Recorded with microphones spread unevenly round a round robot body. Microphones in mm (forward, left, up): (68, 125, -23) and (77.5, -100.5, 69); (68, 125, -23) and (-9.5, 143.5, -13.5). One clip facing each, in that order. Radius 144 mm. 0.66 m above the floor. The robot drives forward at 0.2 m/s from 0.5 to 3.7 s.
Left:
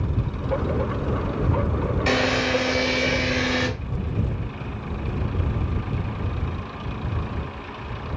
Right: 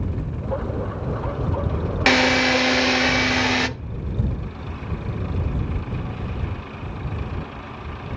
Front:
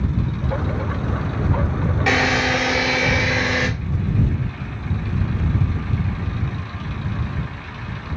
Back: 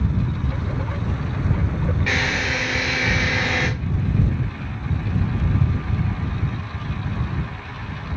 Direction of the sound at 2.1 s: 65° right.